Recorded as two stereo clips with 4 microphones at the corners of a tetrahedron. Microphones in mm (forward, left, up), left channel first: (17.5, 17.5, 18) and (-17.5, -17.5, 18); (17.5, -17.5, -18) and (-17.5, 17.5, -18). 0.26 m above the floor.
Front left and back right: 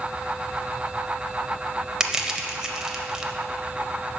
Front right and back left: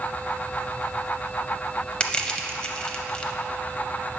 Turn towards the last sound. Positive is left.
turn(degrees=-75)